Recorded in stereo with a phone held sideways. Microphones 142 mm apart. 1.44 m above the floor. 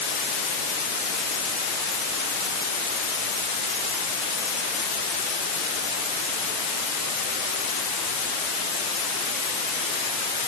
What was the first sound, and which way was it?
Only background noise.